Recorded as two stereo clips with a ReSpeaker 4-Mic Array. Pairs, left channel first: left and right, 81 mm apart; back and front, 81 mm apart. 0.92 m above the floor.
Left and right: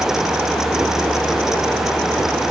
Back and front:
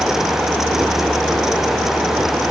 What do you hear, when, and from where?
Only background noise.